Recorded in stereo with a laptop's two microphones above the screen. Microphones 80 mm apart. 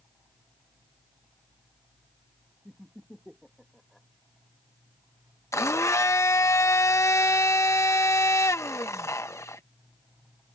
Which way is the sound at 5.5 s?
40° left (ahead or behind).